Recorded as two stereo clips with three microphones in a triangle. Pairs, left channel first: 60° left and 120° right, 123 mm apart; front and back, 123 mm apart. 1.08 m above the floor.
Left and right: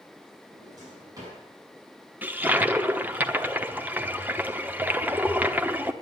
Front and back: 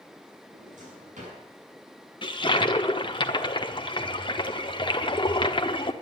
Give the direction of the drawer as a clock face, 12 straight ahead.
6 o'clock.